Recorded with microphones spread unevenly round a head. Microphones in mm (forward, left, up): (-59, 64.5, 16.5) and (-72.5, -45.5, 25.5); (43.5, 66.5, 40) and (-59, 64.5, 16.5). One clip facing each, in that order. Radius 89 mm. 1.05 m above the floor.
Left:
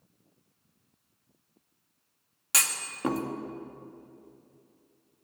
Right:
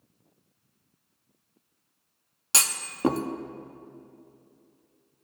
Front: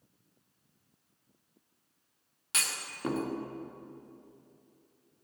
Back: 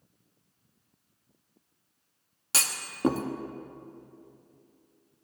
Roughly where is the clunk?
Behind right.